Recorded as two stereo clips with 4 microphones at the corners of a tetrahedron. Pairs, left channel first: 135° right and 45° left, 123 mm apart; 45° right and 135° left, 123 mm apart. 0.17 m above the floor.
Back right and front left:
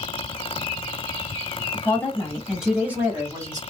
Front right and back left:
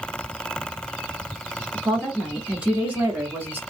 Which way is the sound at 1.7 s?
140° right.